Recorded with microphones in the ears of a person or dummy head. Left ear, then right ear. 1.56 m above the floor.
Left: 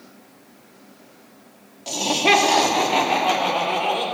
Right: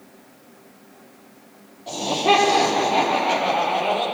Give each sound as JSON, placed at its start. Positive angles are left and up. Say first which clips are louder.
{"t": 1.9, "sound": "laughter", "louder": "left 1 dB", "side_deg": 55, "distance_m": 3.0}